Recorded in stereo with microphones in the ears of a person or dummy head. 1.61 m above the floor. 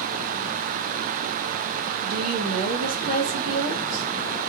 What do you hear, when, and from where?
2.0 s a woman speaking: 85° right, 1.8 m